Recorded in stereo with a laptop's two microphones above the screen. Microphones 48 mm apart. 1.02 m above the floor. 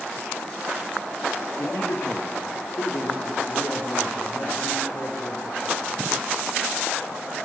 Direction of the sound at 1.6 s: 70° left (ahead or behind).